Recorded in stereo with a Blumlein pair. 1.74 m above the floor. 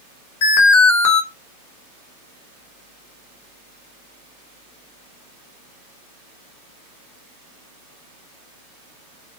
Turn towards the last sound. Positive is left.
turn(degrees=50)